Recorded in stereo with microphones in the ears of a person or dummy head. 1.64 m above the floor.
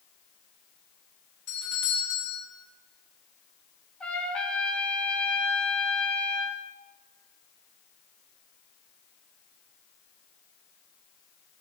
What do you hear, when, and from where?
1.5 s a doorbell: 60° left (ahead or behind), 3 m
4.0 s a trumpet: 5° left (ahead or behind), 2 m